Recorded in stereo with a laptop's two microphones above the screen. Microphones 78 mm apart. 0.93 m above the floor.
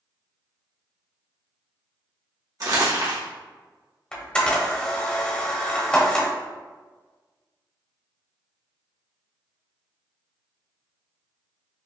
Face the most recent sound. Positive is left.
turn(degrees=15)  # may be behind; listen again after turning